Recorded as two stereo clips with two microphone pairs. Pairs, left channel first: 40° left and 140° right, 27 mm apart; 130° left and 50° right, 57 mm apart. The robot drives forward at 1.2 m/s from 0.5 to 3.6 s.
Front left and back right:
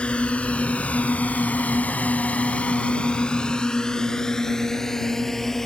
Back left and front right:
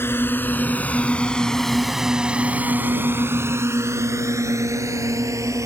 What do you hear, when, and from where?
0.0 s a drone: 90° left; by 5.7 s 35° right